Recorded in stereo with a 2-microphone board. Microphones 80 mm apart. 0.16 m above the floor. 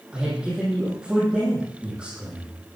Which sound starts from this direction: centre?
A man speaking, at 0.1 s.